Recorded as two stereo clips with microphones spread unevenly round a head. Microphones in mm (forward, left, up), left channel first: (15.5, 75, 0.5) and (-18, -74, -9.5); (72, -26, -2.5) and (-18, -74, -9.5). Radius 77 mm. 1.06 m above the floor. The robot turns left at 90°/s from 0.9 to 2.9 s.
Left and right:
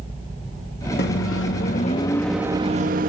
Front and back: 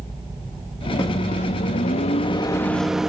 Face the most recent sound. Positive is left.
turn(degrees=-65)